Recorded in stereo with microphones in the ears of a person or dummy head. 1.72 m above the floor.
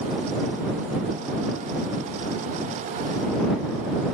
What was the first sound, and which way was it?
Only background noise.